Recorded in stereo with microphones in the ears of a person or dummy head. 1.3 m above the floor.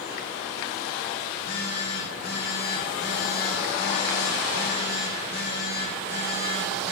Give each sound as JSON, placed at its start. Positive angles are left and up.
{"t": 1.3, "sound": "a phone buzzing", "side_deg": 60, "distance_m": 2.5}